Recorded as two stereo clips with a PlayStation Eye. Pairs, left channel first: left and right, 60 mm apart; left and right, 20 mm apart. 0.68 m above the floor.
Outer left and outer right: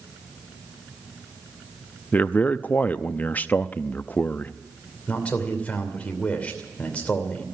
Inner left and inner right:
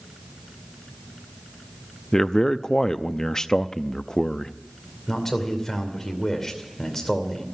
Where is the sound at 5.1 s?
20° left (ahead or behind), 2.5 m.